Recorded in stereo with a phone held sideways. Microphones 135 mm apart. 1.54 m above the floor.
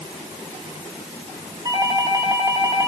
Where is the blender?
I don't hear a blender.